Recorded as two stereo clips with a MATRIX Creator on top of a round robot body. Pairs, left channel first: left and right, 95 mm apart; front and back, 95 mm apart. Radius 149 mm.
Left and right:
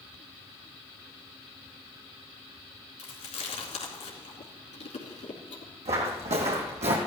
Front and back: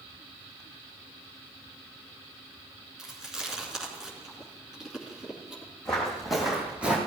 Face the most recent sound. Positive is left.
turn(degrees=-105)